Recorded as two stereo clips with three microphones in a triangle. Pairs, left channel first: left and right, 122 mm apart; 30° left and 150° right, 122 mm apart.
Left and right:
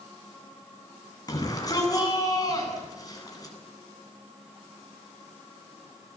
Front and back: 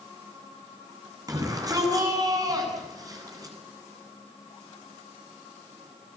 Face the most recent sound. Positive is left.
turn(degrees=150)